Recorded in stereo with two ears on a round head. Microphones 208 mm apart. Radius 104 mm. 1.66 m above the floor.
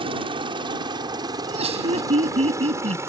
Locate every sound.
0.0 s a helicopter: 25° right (ahead or behind); by 3.1 s 10° right (ahead or behind)
1.4 s laughter: 30° right (ahead or behind)